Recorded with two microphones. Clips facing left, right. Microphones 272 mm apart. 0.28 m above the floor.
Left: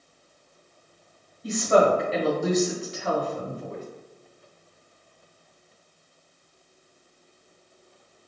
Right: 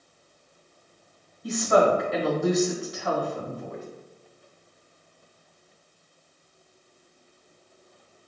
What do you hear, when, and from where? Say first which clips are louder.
1.4 s a woman speaking: left 1 dB; 30° left (ahead or behind), 1.8 m